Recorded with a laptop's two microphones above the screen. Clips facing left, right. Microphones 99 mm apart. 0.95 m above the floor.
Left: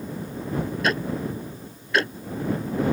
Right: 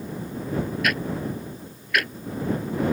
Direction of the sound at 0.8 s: 30° left (ahead or behind).